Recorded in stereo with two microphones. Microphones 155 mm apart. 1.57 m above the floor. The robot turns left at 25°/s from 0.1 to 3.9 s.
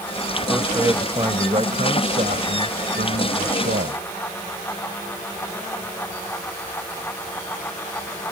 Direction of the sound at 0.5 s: 15° right.